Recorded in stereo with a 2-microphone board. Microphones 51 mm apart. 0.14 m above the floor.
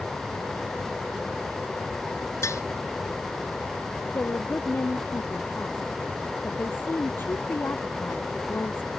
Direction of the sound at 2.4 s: 75° left (ahead or behind).